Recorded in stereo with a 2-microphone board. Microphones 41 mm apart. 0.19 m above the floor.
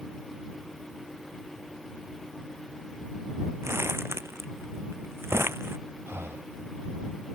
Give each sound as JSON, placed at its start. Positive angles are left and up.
{"t": 3.6, "sound": "crumpling", "side_deg": -85}
{"t": 6.1, "sound": "breathing", "side_deg": -90}